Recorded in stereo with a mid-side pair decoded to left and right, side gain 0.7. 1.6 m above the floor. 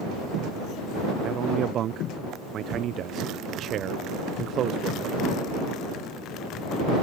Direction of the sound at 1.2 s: 45° right.